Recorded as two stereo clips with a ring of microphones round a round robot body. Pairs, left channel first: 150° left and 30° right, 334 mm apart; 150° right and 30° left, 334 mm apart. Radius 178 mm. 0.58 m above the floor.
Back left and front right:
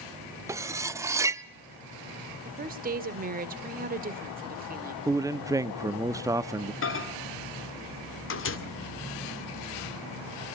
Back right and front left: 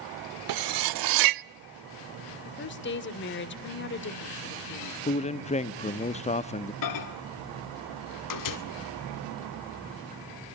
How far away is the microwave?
About 1.9 m.